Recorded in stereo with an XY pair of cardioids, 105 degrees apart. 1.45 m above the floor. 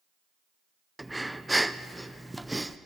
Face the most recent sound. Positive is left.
turn(degrees=-5)